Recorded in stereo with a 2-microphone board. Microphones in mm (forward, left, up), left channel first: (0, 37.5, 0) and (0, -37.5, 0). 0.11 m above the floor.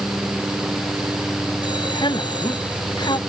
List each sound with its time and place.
1.6 s a man speaking: 85° left